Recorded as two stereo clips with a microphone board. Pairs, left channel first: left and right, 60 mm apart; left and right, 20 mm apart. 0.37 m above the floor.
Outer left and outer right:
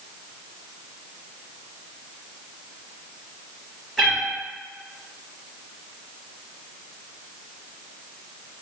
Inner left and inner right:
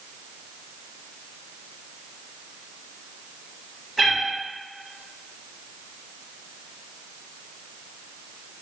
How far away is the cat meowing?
About 1.5 m.